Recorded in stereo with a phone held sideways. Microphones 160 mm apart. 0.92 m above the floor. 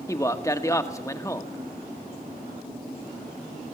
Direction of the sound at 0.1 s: 20° left (ahead or behind).